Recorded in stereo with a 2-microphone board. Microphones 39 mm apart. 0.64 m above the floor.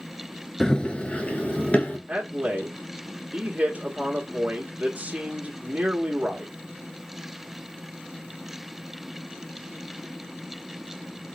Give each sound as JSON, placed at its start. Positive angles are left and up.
{"t": 0.6, "sound": "running footsteps", "side_deg": 15, "distance_m": 0.6}
{"t": 2.1, "sound": "a man speaking", "side_deg": -30, "distance_m": 1.0}